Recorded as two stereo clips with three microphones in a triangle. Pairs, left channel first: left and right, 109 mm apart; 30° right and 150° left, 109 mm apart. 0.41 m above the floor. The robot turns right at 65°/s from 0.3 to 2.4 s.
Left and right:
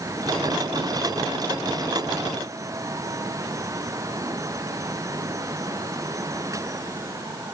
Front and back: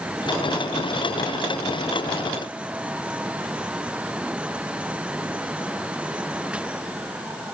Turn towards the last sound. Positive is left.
No sound to turn to.